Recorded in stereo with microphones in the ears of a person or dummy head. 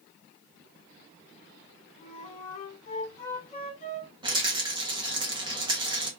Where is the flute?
40° left (ahead or behind), 1.5 m.